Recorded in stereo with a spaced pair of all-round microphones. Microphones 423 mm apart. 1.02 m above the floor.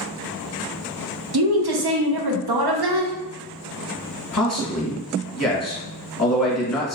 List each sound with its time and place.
1.3 s a woman speaking: 70° right (ahead or behind), 0.6 m
4.3 s a man speaking: 40° left (ahead or behind), 0.9 m